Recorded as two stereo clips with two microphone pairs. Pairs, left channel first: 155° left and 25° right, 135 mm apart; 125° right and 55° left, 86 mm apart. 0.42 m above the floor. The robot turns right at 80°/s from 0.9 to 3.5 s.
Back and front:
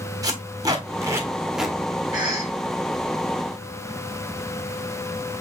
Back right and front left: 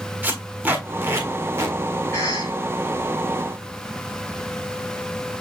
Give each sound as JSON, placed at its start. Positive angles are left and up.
{"t": 0.2, "sound": "tape being pulled", "azimuth_deg": 0, "distance_m": 1.3}
{"t": 2.1, "sound": "a cough", "azimuth_deg": 175, "distance_m": 3.0}